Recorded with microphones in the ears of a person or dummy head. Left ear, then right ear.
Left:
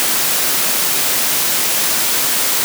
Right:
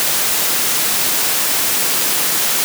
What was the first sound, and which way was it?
Only background noise.